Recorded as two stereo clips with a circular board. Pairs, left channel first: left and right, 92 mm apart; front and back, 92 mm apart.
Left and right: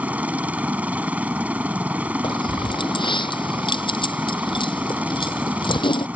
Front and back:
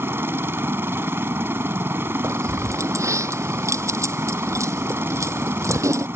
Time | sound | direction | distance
0.0 | a helicopter | 145° right | ?
2.2 | keys jangling | 120° left | ?